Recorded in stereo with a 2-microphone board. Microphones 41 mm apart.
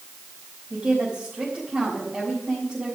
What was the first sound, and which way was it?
A woman speaking, 30° right (ahead or behind).